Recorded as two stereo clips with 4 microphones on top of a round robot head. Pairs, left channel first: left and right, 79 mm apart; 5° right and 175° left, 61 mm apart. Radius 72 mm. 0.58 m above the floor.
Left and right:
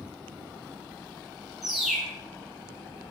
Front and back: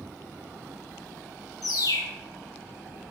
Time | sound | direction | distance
1.6 | a bird | 5° right | 1.4 m